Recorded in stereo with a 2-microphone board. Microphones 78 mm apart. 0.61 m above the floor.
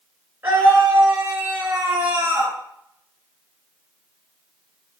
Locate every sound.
0.4 s a scream: 25° right (ahead or behind), 8.5 m